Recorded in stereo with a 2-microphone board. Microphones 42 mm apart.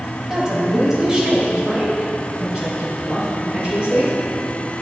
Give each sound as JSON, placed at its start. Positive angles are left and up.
{"t": 0.3, "sound": "a woman speaking", "side_deg": -10, "distance_m": 2.0}